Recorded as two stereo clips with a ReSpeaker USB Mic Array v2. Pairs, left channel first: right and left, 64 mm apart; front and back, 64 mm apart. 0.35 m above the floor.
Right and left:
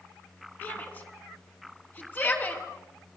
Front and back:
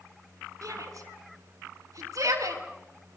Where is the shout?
150° right, 4 m.